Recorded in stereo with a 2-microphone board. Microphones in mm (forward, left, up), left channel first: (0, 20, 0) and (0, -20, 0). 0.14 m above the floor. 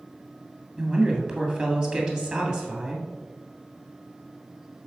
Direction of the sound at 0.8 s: 30° right (ahead or behind).